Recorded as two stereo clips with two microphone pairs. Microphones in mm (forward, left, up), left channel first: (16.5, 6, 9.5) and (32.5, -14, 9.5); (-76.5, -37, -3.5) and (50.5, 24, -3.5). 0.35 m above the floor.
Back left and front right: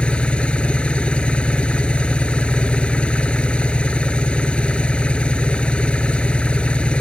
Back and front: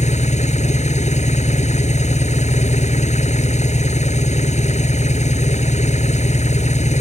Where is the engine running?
175° left.